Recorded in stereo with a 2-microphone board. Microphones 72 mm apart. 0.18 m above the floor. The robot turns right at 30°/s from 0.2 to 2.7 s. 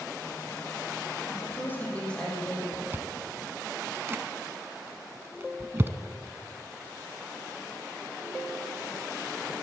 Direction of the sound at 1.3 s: 145° left.